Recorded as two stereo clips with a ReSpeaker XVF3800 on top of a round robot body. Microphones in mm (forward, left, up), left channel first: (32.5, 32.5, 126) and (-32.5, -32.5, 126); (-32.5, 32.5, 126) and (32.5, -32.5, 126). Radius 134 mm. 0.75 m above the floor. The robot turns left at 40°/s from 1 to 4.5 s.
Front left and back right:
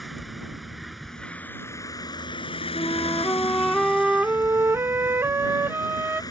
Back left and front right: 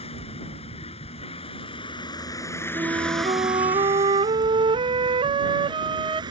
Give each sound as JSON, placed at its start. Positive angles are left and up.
{"t": 0.0, "sound": "a vehicle", "azimuth_deg": 135}
{"t": 2.7, "sound": "a flute", "azimuth_deg": 0}